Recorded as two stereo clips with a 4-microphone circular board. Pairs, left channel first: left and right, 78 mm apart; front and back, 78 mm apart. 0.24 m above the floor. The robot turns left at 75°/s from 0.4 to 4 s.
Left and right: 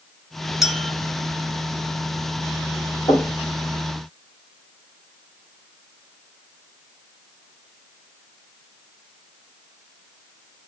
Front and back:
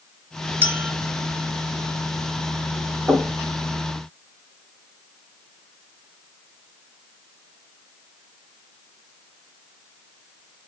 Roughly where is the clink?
Behind.